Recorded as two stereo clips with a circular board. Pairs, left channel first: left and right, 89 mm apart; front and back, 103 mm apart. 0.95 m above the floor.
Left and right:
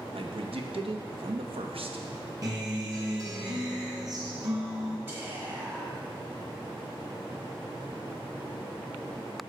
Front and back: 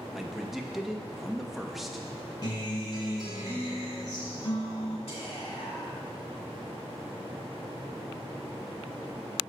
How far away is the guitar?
About 1.8 m.